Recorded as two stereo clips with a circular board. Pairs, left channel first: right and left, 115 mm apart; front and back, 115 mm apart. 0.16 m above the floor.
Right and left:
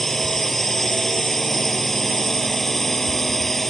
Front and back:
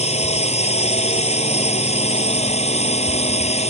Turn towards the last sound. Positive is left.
turn(degrees=0)